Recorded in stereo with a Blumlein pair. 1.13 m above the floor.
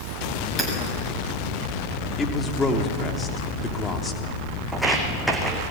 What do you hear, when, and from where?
0.6 s hammering: straight ahead, 7 m
2.2 s a man speaking: 15° left, 3.5 m
4.7 s footsteps: 5° right, 4 m